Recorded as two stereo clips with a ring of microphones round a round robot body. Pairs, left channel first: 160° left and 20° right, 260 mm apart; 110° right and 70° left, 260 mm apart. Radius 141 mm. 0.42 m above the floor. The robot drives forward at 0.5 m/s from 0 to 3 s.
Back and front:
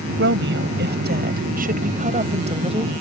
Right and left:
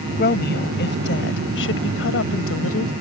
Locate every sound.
0.2 s a woman speaking: 65° right; by 2.9 s 90° right